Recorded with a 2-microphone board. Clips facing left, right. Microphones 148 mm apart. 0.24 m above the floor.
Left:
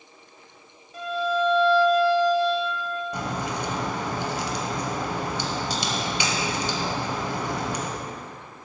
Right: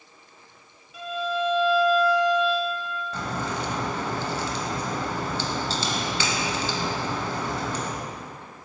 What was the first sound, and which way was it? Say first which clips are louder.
A violin: left 3 dB; 40° left (ahead or behind).